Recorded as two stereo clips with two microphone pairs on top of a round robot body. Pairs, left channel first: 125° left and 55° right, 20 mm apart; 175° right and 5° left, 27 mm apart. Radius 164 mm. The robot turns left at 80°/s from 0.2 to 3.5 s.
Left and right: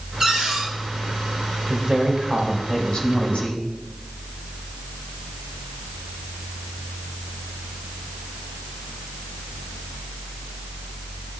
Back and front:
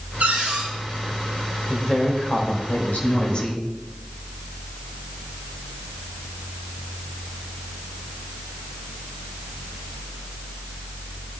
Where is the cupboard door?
5° left, 5 m; by 0.7 s 35° right, 5 m.